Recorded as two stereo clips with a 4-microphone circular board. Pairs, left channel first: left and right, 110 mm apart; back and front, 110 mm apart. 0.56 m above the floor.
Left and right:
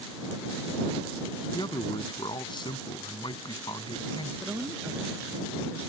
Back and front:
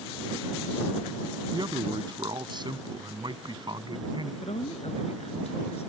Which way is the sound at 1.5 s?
45° left.